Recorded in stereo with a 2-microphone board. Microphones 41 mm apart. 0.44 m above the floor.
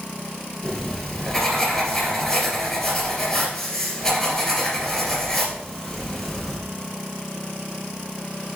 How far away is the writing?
About 2.5 m.